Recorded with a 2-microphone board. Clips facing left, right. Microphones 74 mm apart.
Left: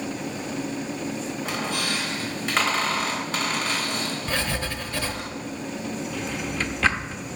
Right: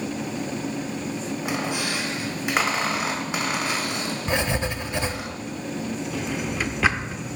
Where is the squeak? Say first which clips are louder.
Right 2 dB; 15° right (ahead or behind), 2.0 m.